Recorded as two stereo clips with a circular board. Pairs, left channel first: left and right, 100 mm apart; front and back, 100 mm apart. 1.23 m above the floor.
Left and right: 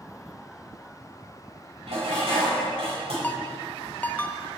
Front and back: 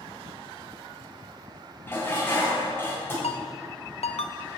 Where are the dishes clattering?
70° right, 4 m.